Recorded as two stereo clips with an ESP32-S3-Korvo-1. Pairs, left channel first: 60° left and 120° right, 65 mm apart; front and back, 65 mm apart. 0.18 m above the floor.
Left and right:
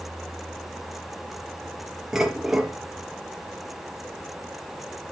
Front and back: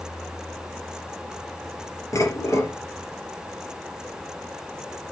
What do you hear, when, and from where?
2.1 s dishes clattering: 40° right, 3 m